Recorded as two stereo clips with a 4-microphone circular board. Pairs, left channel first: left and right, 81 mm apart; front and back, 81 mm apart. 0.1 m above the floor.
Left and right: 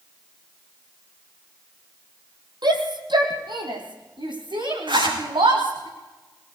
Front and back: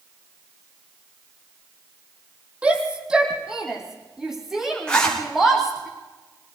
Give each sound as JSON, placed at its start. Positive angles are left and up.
{"t": 2.6, "sound": "a shout", "azimuth_deg": -105, "distance_m": 3.5}
{"t": 4.9, "sound": "a zipper", "azimuth_deg": -80, "distance_m": 7.0}